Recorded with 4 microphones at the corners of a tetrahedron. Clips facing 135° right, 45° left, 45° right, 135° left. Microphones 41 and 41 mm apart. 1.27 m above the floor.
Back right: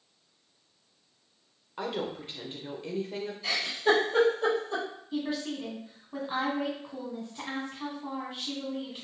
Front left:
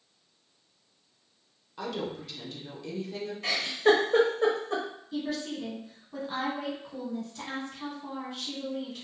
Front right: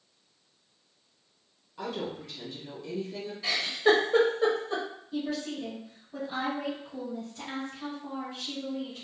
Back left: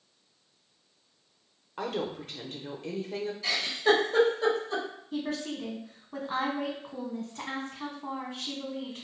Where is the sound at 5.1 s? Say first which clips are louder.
Back right 1 dB, even; 155° left, 1.0 m.